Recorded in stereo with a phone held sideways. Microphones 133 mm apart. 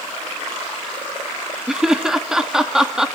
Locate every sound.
1.7 s laughter: 5° right (ahead or behind), 1.8 m